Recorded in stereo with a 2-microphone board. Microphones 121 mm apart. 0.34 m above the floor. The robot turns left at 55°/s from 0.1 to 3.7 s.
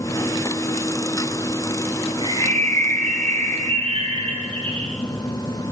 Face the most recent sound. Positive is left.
turn(degrees=-125)